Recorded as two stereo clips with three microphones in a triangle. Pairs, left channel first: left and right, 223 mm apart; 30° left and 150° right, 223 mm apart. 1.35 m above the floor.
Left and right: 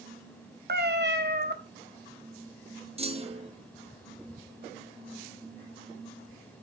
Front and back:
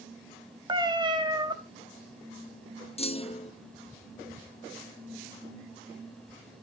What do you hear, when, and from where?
0.7 s a cat meowing: 85° right, 1.1 m
3.0 s a clunk: 35° right, 0.5 m